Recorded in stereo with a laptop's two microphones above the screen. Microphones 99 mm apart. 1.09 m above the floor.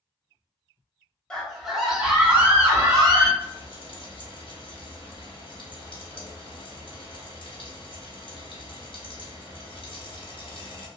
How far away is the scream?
About 1.2 m.